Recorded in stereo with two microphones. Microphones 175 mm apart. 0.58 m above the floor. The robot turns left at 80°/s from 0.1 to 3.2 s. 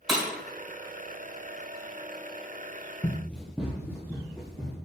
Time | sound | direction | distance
0.1 | breaking glass | centre (ahead or behind) | 1.3 m
3.0 | running footsteps | 15° left (ahead or behind) | 0.6 m